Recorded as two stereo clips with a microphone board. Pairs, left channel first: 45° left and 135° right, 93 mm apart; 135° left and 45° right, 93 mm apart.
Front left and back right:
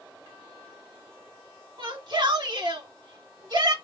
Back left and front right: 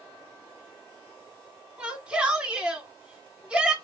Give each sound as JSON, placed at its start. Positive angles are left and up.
{"t": 1.8, "sound": "a shout", "azimuth_deg": -120, "distance_m": 1.4}